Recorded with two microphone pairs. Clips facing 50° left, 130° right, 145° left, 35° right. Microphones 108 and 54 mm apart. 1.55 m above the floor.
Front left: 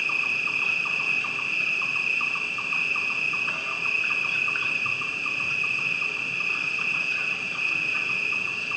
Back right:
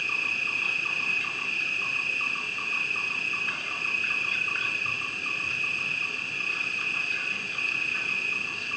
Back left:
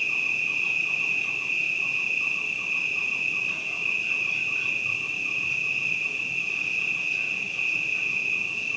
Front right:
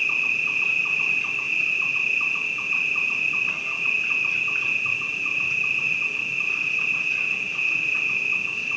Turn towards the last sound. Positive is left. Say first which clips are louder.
# front left 3 dB, front right 3 dB
turn(degrees=-10)